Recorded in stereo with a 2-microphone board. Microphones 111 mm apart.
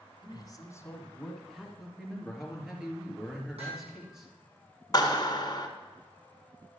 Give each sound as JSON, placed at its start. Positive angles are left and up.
{"t": 0.2, "sound": "a man speaking", "side_deg": 45, "distance_m": 2.0}
{"t": 1.8, "sound": "a man speaking", "side_deg": -5, "distance_m": 3.0}
{"t": 3.6, "sound": "hammering", "side_deg": -70, "distance_m": 4.5}
{"t": 4.9, "sound": "a clap", "side_deg": 40, "distance_m": 1.8}